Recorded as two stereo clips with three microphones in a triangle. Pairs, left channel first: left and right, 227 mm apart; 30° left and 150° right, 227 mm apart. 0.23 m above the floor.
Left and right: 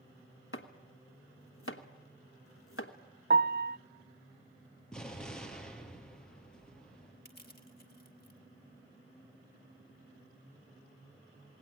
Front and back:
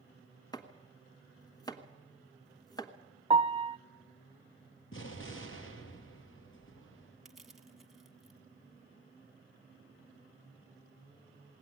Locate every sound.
0.5 s chopping: 100° left, 1.1 m
3.3 s a piano: 95° right, 0.7 m
4.9 s an explosion: 5° left, 3.5 m
7.2 s crushing: 120° left, 1.5 m